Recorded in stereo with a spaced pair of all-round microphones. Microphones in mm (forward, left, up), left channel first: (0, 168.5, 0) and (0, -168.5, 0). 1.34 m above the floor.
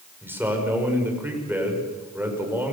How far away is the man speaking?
About 5.5 m.